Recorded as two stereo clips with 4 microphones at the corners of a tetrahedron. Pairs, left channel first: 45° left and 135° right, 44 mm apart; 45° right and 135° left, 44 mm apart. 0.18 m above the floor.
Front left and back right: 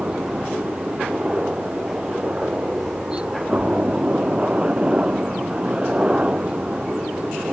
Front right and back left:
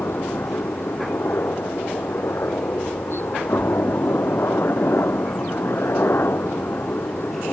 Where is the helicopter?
70° right.